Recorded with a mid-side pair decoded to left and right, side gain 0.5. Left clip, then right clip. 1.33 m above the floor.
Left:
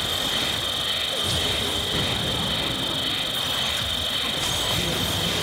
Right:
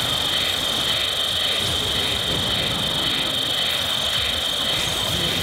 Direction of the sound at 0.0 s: 25° right.